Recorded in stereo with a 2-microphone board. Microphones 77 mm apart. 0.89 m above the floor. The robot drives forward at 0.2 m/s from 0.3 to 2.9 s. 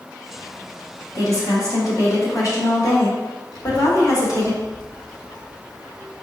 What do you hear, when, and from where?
1.1 s a woman speaking: 55° left (ahead or behind), 1.4 m
3.5 s a child speaking: 80° left, 1.3 m